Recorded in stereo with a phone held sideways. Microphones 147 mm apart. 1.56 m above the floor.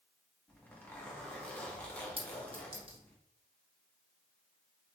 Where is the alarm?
No alarm in this recording.